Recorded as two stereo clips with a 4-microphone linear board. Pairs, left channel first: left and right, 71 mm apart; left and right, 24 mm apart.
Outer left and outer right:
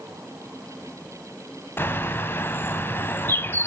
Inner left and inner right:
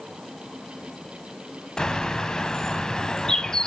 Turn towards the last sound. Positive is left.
turn(degrees=35)  # may be behind; listen again after turning